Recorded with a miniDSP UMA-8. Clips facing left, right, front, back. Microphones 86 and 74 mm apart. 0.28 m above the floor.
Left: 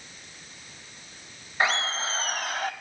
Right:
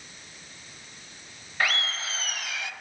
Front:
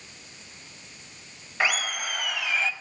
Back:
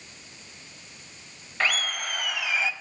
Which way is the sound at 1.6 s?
60° left.